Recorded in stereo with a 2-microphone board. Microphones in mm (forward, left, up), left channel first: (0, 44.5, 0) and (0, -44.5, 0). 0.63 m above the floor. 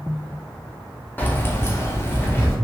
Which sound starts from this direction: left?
Keys jangling, at 1.2 s.